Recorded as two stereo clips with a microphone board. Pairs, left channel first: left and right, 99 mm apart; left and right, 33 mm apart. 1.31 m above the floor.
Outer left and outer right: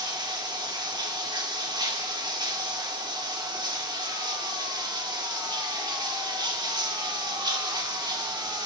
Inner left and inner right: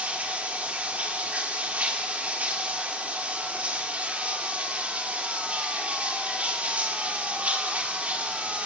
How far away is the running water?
About 3 m.